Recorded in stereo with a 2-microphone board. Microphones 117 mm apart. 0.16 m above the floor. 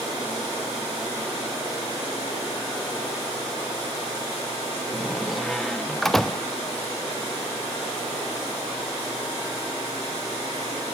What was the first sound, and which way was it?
A door slam, 5° left (ahead or behind).